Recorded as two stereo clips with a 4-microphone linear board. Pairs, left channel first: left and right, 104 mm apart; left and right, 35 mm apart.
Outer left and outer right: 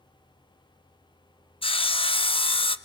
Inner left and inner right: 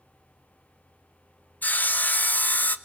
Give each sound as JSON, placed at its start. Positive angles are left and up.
{"t": 1.6, "sound": "sawing", "side_deg": 60, "distance_m": 0.6}